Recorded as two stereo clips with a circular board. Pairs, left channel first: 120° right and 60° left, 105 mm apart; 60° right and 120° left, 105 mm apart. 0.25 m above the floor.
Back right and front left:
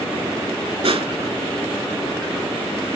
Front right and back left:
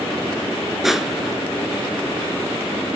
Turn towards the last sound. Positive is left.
turn(degrees=35)